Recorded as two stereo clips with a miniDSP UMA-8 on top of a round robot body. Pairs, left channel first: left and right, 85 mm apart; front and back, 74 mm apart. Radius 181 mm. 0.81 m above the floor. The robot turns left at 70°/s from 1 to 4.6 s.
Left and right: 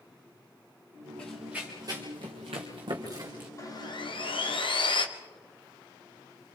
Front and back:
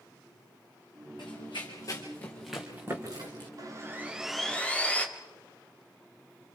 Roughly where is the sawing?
Behind left.